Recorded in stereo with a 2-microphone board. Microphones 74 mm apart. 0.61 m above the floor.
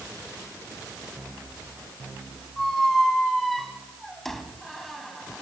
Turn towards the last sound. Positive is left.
turn(degrees=0)  # may be behind; listen again after turning